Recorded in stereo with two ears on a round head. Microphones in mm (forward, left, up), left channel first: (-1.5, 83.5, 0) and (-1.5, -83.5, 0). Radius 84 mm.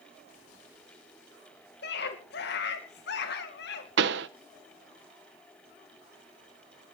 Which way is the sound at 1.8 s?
60° left (ahead or behind).